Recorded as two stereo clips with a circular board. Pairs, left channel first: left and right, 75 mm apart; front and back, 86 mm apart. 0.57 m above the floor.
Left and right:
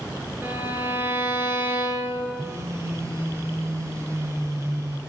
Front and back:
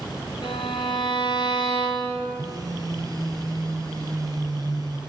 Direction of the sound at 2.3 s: 135° right.